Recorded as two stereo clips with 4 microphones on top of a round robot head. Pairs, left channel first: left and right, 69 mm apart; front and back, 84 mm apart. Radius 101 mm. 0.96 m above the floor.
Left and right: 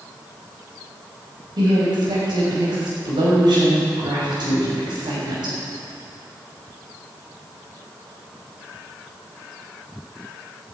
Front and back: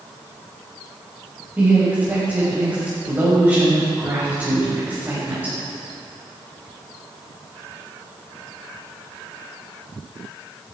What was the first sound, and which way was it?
A woman speaking, 105° right.